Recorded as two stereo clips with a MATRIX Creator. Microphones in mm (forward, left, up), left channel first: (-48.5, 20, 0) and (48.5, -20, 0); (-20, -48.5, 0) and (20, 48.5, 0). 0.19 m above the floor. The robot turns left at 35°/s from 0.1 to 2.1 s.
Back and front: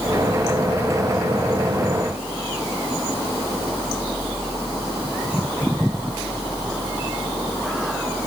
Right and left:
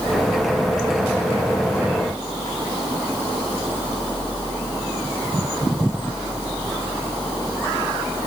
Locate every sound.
Only background noise.